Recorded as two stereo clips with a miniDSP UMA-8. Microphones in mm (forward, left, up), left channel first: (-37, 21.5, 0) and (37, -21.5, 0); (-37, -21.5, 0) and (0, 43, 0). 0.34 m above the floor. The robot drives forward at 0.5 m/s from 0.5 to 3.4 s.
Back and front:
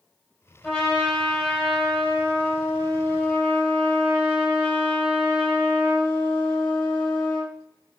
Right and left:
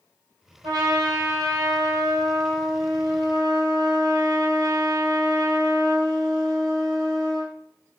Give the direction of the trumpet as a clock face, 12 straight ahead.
10 o'clock.